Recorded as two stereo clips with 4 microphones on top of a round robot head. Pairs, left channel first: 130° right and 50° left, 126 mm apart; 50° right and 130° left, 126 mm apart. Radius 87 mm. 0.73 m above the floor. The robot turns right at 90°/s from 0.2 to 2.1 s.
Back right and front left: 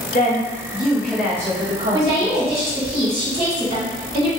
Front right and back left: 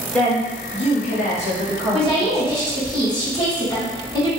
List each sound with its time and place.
0.1 s a woman speaking: 130° right, 1.3 m; by 2.6 s 40° left, 1.3 m
1.9 s a woman speaking: 5° right, 1.7 m; by 4.3 s 10° left, 1.7 m